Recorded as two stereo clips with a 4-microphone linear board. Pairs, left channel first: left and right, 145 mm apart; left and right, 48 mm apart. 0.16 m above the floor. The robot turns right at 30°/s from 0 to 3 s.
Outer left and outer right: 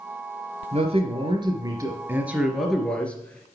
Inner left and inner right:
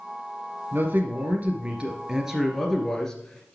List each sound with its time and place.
0.7 s a man speaking: 60° right, 2.5 m; by 3.5 s 10° left, 2.5 m